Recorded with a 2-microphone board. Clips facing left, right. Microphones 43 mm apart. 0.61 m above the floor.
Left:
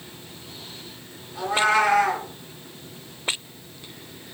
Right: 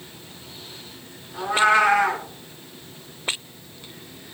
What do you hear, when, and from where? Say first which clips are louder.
1.3 s a cat meowing: right 2 dB; 30° right (ahead or behind), 2.5 m